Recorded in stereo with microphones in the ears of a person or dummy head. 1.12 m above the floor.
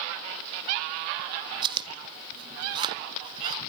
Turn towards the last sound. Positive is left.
turn(degrees=-25)  # may be behind; listen again after turning